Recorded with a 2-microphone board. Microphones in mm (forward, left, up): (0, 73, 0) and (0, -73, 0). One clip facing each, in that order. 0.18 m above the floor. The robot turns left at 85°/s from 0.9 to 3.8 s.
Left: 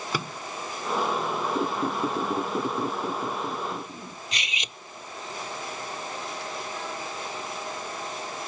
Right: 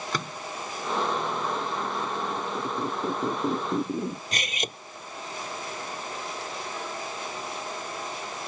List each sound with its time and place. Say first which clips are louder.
0.1 s a microwave: left 2 dB; 10° left (ahead or behind)
1.6 s a squeak: left 4 dB; 115° left; by 4.2 s 75° right
4.3 s cutlery clinking: right 5 dB; 50° right (ahead or behind)